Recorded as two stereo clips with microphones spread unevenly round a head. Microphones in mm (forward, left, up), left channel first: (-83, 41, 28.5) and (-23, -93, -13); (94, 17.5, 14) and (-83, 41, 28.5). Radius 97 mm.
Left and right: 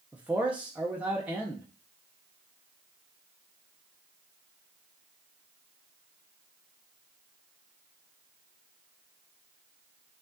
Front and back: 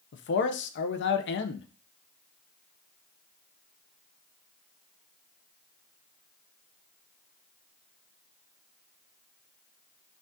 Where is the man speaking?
15° left, 0.6 m.